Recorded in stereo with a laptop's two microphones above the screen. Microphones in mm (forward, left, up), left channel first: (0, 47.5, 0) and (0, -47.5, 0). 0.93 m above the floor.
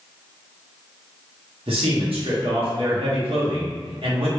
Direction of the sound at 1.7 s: 70° right (ahead or behind).